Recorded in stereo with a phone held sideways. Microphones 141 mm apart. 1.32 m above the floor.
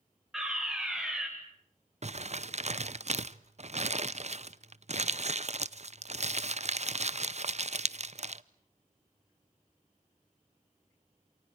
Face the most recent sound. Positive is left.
turn(degrees=-55)  # may be behind; listen again after turning